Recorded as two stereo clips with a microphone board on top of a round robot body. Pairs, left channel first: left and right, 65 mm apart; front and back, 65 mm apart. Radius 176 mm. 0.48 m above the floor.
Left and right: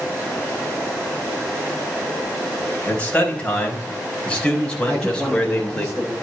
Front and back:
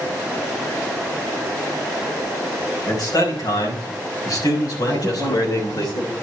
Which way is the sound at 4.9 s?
5° left.